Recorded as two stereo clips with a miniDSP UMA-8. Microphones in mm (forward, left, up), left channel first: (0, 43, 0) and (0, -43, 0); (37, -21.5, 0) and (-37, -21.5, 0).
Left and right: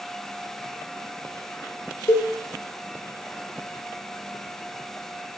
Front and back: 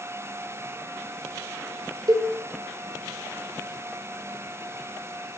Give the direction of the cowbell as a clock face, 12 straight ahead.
7 o'clock.